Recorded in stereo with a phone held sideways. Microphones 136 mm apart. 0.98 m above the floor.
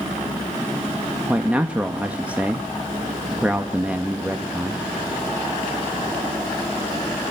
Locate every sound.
1.3 s a man speaking: 10° right (ahead or behind), 1.1 m